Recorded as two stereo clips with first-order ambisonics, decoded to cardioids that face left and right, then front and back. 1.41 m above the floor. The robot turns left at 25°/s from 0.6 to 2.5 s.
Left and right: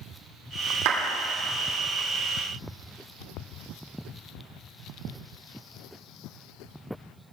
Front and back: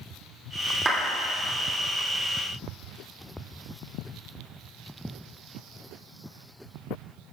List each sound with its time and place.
0.8 s a clap: 105° right, 2.5 m; by 1.0 s 110° right, 2.5 m